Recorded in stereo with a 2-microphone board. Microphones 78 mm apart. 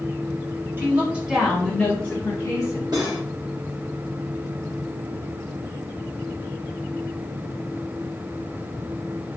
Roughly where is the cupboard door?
I don't hear a cupboard door.